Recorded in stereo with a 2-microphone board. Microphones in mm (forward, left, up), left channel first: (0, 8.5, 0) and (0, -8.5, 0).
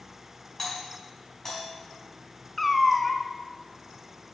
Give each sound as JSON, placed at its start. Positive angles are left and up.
{"t": 0.6, "sound": "a doorbell", "side_deg": 30, "distance_m": 4.0}
{"t": 2.6, "sound": "a cat meowing", "side_deg": 10, "distance_m": 0.9}